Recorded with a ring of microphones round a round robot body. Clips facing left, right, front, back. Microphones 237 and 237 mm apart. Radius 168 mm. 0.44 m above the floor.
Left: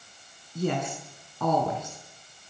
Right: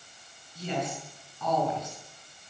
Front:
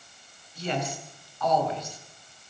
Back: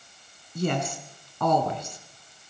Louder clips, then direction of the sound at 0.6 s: Left 5 dB, back 4 dB; 145° left.